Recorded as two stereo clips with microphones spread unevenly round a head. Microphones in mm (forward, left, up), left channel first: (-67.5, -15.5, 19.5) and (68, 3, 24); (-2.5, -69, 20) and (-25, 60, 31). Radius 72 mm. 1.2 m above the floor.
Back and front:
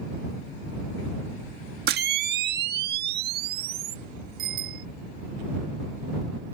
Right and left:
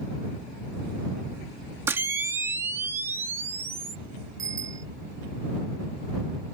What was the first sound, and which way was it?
A camera shutter, 25° left.